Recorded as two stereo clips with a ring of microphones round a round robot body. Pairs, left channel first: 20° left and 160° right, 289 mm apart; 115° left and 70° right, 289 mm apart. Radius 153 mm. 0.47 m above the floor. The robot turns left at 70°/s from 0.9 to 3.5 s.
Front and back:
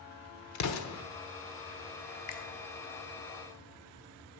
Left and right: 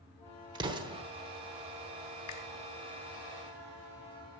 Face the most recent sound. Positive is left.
turn(degrees=-10)